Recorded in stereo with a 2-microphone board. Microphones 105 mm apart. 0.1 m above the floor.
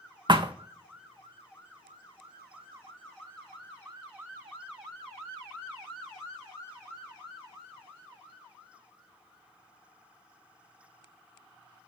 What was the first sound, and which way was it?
A thud, 45° right (ahead or behind).